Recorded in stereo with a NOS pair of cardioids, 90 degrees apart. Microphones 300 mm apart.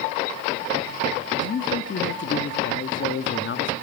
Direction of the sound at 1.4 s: 40° left.